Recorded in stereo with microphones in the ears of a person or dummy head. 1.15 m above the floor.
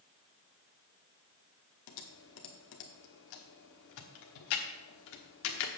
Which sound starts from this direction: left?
Typing on a keyboard, at 1.9 s.